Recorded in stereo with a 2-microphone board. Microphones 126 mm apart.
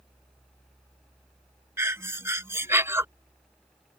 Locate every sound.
1.8 s breathing: 20° right (ahead or behind)